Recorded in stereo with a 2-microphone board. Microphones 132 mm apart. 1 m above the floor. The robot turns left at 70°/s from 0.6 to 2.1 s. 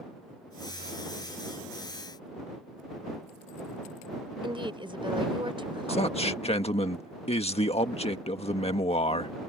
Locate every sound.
4.4 s a woman speaking: 40° right (ahead or behind)
5.9 s a man speaking: 50° left (ahead or behind)